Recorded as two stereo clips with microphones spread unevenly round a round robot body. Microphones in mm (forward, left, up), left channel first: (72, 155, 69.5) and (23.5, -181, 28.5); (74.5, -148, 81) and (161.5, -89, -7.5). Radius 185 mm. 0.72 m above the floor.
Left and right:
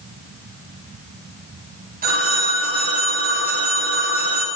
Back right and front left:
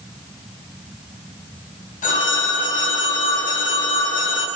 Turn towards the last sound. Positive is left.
turn(degrees=-165)